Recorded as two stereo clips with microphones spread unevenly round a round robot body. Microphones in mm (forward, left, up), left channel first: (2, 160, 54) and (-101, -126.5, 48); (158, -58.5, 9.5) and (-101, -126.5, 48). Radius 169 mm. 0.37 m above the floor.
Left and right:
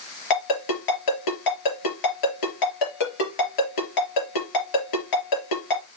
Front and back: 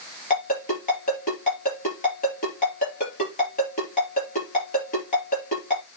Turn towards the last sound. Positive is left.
turn(degrees=80)